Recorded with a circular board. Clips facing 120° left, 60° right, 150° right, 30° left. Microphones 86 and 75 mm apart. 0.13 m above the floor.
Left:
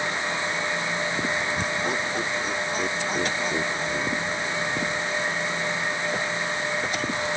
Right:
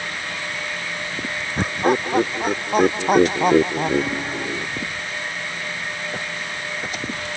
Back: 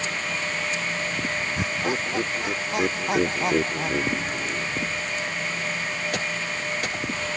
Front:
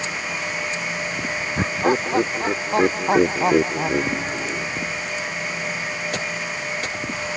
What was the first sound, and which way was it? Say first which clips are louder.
Laughter: right 7 dB, front 10 dB; 20° right.